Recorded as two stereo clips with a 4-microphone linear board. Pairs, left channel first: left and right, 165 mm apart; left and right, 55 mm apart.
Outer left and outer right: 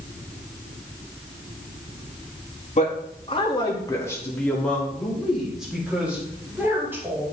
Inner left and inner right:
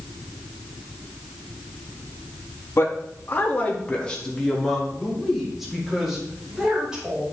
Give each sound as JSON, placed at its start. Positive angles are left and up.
{"t": 2.8, "sound": "a man speaking", "side_deg": 50, "distance_m": 2.5}